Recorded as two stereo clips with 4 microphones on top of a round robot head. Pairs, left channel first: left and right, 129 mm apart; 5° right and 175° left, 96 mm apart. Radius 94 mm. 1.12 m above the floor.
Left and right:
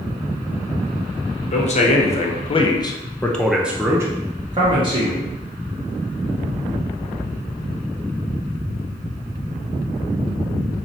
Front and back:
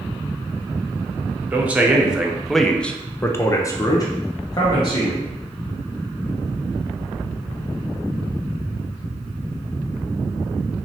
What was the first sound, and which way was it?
A man speaking, 100° left.